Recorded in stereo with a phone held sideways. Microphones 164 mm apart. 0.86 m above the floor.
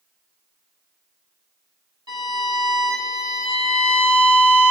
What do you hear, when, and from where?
2.1 s a violin: 30° right (ahead or behind), 2 m